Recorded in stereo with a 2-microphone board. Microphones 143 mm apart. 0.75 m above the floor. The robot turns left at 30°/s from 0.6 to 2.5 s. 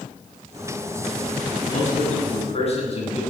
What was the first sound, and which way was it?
A man speaking, 70° left (ahead or behind).